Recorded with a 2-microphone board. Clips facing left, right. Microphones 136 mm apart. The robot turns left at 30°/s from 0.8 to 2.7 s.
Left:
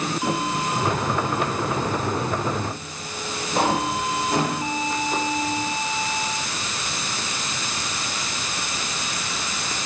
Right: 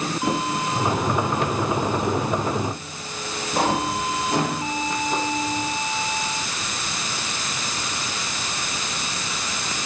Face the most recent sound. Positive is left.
No sound to turn to.